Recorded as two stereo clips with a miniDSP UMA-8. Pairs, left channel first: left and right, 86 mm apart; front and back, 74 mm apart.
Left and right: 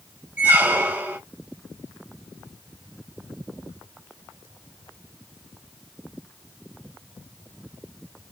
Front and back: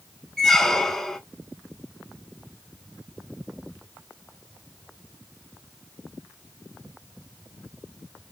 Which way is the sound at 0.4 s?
80° right.